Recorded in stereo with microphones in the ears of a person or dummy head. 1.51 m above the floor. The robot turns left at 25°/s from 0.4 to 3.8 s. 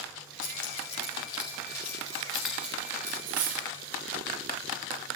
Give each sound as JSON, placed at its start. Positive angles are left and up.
{"t": 0.4, "sound": "keys jangling", "side_deg": 50, "distance_m": 4.0}
{"t": 3.3, "sound": "cutlery clinking", "side_deg": -45, "distance_m": 1.0}